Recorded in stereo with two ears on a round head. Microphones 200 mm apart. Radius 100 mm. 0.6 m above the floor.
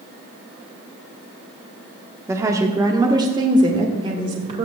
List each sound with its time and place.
2.3 s a woman speaking: 10° right (ahead or behind), 1.4 m; by 4.7 s 25° right (ahead or behind), 2.5 m